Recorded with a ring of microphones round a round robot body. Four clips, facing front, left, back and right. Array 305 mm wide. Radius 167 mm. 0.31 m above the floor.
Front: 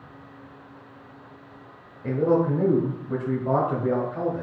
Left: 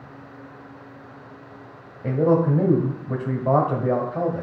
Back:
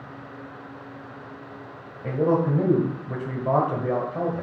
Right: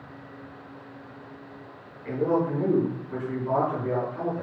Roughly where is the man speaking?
Left.